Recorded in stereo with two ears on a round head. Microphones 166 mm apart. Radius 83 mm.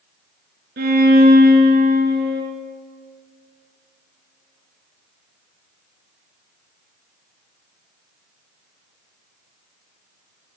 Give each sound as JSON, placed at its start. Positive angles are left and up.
{"t": 0.8, "sound": "a violin", "side_deg": -60, "distance_m": 2.5}